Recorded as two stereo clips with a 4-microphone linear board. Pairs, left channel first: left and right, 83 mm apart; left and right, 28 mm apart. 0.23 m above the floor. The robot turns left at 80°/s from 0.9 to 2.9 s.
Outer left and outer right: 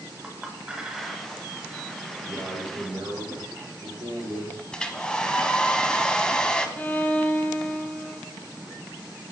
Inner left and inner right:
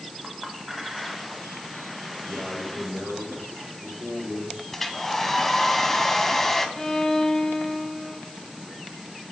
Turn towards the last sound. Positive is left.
turn(degrees=20)  # may be behind; listen again after turning